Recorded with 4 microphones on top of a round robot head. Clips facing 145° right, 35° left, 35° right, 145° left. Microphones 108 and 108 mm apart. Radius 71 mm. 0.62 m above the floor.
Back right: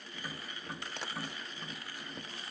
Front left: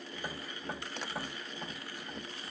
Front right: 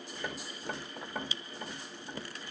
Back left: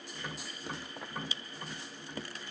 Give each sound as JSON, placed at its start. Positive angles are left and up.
{"t": 0.1, "sound": "tapping", "azimuth_deg": -10, "distance_m": 1.6}